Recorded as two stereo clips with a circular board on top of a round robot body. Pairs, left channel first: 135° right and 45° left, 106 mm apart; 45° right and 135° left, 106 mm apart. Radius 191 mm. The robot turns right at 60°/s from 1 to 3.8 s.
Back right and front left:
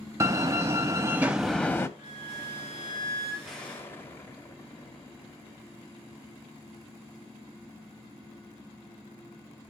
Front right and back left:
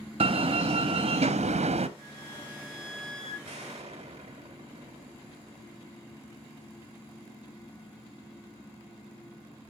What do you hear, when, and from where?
0.2 s a door slam: 110° left, 0.7 m; by 1.9 s 160° left, 0.7 m
2.0 s a flute: 30° left, 4.5 m; by 3.3 s 110° left, 4.5 m
3.4 s an explosion: 135° left, 1.3 m; by 6.7 s 155° left, 1.3 m